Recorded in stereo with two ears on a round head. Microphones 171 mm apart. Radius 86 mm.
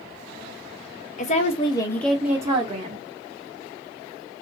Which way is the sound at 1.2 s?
40° left (ahead or behind).